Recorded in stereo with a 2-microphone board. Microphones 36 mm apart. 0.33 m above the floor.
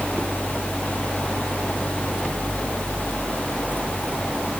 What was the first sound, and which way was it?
Only background noise.